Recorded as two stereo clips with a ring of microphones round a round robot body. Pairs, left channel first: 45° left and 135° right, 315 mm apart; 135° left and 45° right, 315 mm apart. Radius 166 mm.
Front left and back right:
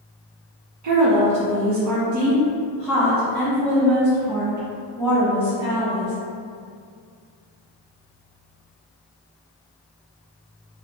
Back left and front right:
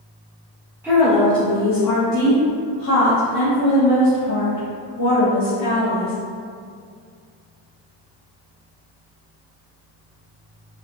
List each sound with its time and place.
0.8 s a woman speaking: 125° right, 0.5 m; by 6.1 s 140° left, 2.5 m